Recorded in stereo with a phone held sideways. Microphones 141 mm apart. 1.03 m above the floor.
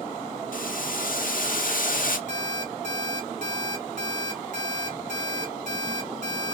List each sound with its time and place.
0.5 s boiling: 70° left (ahead or behind), 0.6 m
2.3 s an alarm clock: 60° left (ahead or behind), 1.4 m